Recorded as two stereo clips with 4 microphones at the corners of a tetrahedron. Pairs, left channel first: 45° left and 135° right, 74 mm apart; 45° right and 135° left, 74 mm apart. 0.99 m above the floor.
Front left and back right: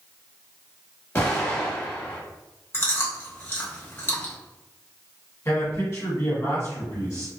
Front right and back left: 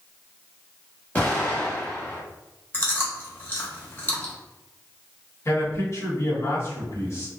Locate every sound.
1.1 s an explosion: 5° left, 1.0 m
2.7 s chewing: straight ahead, 0.8 m
5.5 s a man speaking: straight ahead, 1.5 m